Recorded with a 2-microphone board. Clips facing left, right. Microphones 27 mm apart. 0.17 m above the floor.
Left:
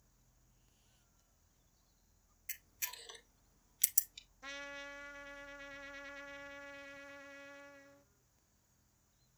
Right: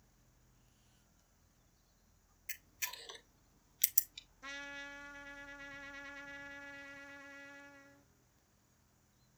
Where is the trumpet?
Centre (ahead or behind), 0.5 m.